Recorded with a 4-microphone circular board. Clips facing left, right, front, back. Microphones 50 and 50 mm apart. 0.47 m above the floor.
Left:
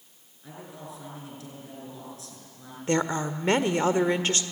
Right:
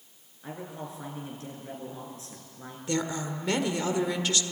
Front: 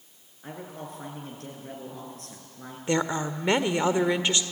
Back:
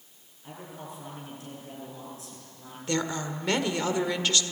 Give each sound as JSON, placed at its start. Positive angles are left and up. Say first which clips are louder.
{"t": 0.4, "sound": "a man speaking", "louder": "right 3 dB, front 3 dB", "azimuth_deg": -35, "distance_m": 7.5}
{"t": 2.9, "sound": "a woman speaking", "louder": "left 5 dB, front 3 dB", "azimuth_deg": 60, "distance_m": 1.4}